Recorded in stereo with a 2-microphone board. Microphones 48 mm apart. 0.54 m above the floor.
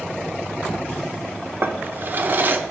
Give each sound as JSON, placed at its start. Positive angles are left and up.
{"t": 1.6, "sound": "a drawer", "side_deg": -40, "distance_m": 0.7}